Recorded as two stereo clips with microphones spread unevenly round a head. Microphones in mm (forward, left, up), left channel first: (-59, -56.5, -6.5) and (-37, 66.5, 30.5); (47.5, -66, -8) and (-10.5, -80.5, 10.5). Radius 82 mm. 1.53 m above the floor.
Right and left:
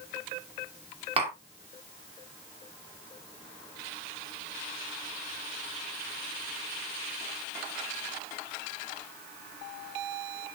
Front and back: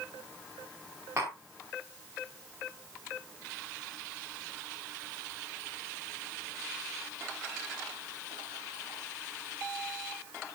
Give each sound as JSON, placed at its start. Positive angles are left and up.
{"t": 1.2, "sound": "tapping", "azimuth_deg": 120, "distance_m": 3.0}